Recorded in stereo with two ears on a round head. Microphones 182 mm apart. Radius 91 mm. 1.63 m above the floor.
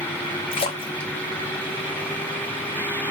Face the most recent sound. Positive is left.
turn(degrees=25)  # may be behind; listen again after turning